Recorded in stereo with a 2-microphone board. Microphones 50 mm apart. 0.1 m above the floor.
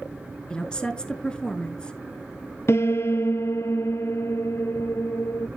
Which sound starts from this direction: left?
A piano, at 2.7 s.